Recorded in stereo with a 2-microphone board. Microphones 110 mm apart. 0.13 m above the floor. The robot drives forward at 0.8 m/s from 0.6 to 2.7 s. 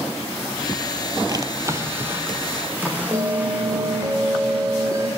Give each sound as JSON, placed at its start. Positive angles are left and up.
{"t": 1.3, "sound": "a drawer", "side_deg": -40, "distance_m": 0.7}
{"t": 3.1, "sound": "a bell", "side_deg": -30, "distance_m": 0.9}